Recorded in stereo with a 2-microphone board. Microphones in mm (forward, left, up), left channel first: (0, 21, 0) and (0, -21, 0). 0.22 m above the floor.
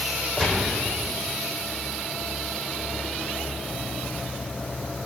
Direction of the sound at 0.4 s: 25° left (ahead or behind).